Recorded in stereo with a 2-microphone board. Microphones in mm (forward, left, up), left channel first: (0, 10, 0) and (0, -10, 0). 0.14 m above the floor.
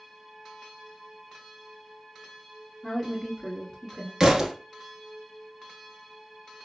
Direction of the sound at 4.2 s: 25° right (ahead or behind).